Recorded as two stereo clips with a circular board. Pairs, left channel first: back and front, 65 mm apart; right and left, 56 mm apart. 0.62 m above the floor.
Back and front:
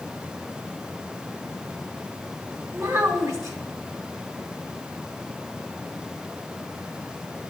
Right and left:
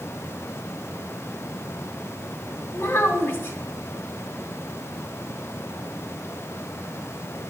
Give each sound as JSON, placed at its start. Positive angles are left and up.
{"t": 2.7, "sound": "a child speaking", "azimuth_deg": -35, "distance_m": 3.0}